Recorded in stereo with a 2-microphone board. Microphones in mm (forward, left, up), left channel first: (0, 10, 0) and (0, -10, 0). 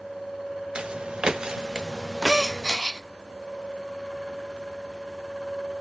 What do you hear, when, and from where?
0.8 s footsteps: 60° right (ahead or behind), 1.3 m; by 2.8 s 10° left (ahead or behind), 1.0 m
2.3 s a gasp: 15° right (ahead or behind), 0.7 m